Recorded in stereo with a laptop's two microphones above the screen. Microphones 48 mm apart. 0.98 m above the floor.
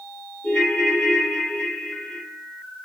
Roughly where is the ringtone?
Left.